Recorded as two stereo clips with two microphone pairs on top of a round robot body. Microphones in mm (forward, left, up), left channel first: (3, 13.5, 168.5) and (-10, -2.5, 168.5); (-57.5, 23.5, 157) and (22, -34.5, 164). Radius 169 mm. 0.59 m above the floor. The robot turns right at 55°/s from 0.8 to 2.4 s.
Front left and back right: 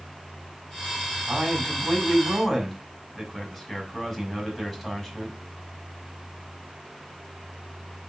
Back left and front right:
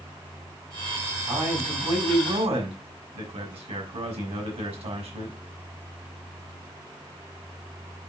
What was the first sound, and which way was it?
A man speaking, 85° right.